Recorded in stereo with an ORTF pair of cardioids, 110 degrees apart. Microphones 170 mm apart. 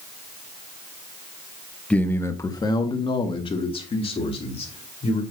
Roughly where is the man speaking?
Ahead.